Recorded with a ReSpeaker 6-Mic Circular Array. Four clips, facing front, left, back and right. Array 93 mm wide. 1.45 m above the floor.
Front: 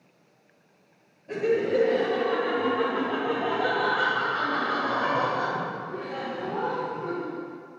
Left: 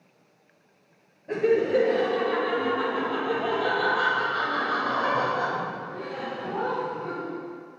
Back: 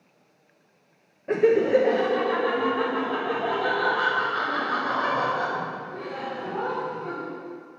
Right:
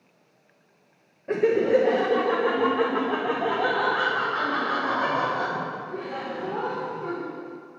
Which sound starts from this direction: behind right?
Laughter, at 1.3 s.